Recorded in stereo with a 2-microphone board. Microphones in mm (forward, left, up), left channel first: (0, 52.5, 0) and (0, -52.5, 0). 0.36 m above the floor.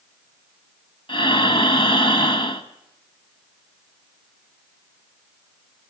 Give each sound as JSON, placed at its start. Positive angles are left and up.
{"t": 1.1, "sound": "breathing", "side_deg": 55, "distance_m": 1.7}